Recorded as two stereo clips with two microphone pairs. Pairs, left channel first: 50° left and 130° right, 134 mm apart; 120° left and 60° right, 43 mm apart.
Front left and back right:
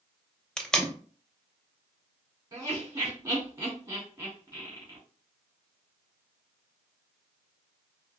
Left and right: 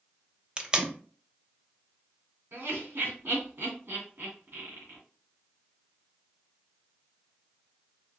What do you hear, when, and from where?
0.6 s tape being pulled: 25° right, 0.6 m
2.5 s laughter: 85° right, 1.9 m